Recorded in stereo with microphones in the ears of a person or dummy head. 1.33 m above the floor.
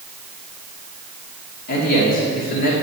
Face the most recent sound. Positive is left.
turn(degrees=45)  # may be behind; listen again after turning